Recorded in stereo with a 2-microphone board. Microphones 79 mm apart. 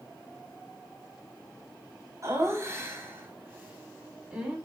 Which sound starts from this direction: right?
Laughter, at 2.2 s.